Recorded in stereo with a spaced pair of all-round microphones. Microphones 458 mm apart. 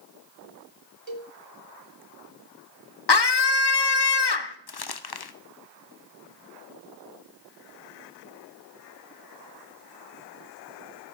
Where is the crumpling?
55° left (ahead or behind), 0.6 m.